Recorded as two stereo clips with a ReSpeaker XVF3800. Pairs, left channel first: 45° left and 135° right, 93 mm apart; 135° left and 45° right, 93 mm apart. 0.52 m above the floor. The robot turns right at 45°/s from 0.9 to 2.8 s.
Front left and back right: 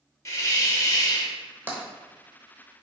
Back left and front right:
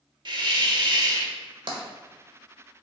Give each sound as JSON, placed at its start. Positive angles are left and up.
{"t": 0.2, "sound": "a hiss", "azimuth_deg": -10, "distance_m": 0.7}
{"t": 1.7, "sound": "tapping", "azimuth_deg": -65, "distance_m": 1.0}